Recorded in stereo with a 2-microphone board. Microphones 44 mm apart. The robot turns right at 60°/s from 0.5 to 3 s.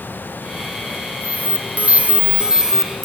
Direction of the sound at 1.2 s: 110° right.